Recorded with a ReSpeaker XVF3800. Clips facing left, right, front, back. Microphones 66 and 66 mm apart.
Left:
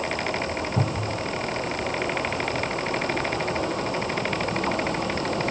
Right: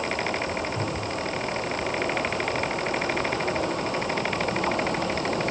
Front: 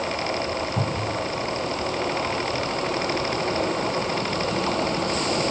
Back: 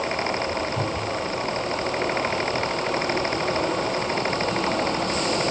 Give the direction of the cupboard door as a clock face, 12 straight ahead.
10 o'clock.